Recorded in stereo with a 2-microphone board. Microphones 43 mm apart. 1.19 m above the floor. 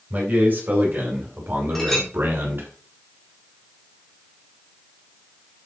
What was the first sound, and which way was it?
A man speaking, 35° right (ahead or behind).